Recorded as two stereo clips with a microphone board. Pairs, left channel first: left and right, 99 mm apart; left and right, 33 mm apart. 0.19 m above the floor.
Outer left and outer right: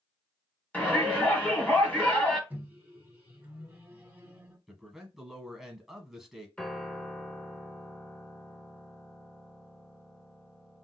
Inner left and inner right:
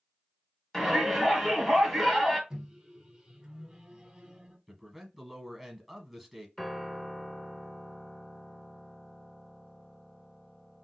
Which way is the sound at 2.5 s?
20° right (ahead or behind).